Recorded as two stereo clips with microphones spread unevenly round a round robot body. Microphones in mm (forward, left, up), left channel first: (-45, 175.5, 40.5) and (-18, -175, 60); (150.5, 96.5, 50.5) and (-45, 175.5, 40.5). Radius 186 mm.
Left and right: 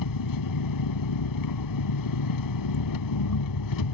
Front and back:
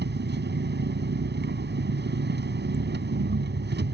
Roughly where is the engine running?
Behind left.